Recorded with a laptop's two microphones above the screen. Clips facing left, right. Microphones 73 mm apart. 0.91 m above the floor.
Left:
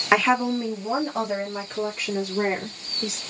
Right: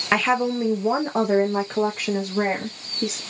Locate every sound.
0.1 s a woman speaking: 10° left (ahead or behind), 0.6 m; by 3.2 s 70° right (ahead or behind), 1.6 m